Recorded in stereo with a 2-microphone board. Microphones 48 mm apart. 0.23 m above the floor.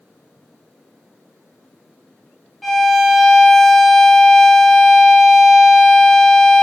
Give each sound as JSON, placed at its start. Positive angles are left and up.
{"t": 2.6, "sound": "a violin", "side_deg": 0, "distance_m": 0.6}